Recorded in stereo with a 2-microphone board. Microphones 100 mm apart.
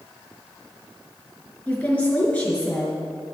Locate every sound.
1.7 s a woman speaking: 15° left (ahead or behind), 4 m